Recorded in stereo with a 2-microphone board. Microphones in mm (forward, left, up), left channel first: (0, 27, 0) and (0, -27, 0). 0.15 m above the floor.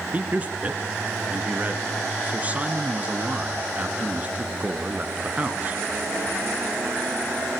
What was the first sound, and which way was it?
A man speaking, 30° right (ahead or behind).